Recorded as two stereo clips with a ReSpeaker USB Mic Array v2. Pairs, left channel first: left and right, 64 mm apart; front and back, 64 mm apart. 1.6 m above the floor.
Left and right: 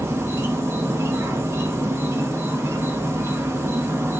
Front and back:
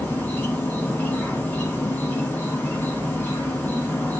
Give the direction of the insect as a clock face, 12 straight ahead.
2 o'clock.